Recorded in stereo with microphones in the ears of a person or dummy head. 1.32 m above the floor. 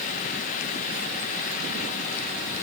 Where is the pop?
No pop in this recording.